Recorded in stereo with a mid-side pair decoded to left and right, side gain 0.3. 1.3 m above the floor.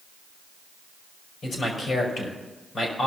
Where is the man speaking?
65° left, 5.5 m.